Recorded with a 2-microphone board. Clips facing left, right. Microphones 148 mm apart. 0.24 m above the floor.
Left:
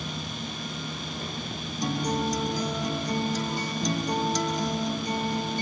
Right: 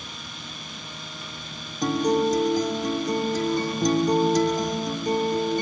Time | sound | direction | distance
1.8 | a guitar | 50° right (ahead or behind) | 2.5 m